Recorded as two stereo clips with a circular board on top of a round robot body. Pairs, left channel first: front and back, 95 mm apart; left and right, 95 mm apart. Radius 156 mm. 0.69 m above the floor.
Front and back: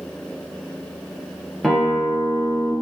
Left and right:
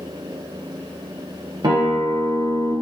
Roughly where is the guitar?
Right.